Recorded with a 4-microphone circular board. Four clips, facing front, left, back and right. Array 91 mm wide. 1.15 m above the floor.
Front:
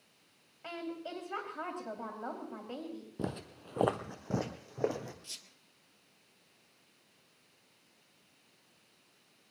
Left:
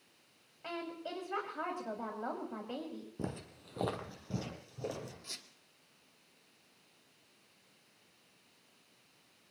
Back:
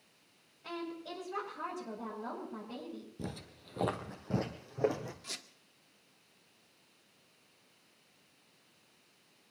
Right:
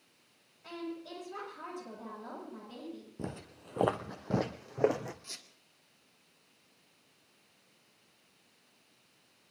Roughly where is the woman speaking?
Ahead left.